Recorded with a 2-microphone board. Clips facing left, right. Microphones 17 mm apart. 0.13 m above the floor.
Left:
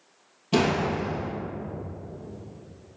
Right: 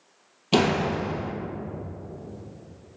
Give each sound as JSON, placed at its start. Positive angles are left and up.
{"t": 0.5, "sound": "a door slam", "side_deg": -40, "distance_m": 2.5}